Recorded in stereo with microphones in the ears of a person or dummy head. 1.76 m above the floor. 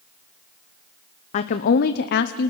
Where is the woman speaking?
45° left (ahead or behind), 0.9 m; by 2.5 s 60° left (ahead or behind), 0.8 m.